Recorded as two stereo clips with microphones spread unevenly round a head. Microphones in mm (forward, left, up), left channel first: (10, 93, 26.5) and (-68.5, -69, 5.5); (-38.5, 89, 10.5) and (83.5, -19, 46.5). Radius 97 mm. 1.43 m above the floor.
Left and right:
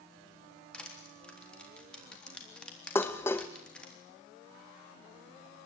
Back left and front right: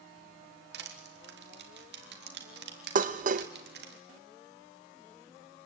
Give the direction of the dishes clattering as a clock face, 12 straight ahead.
12 o'clock.